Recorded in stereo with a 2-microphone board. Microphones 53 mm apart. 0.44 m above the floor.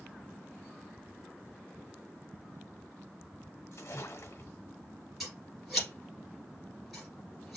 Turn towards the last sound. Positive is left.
turn(degrees=-5)  # may be behind; listen again after turning